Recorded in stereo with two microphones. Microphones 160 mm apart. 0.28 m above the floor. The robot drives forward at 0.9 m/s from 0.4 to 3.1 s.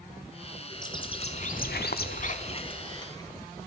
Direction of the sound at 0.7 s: 25° left (ahead or behind).